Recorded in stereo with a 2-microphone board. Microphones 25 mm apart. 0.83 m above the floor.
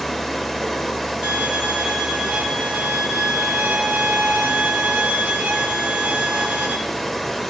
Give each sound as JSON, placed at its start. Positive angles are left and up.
{"t": 0.0, "sound": "running water", "side_deg": 10, "distance_m": 1.7}
{"t": 1.2, "sound": "a violin", "side_deg": -70, "distance_m": 1.7}